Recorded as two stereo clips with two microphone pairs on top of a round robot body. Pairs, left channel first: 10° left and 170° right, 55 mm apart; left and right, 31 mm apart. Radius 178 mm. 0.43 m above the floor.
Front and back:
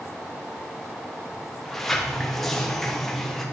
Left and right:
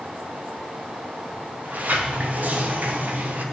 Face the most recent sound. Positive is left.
turn(degrees=-75)